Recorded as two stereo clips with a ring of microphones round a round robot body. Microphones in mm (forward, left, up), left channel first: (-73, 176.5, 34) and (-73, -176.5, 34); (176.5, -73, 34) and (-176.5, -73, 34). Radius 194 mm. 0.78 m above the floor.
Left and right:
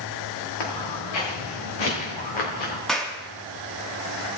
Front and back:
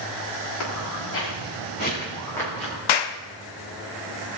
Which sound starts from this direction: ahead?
A clap, at 2.9 s.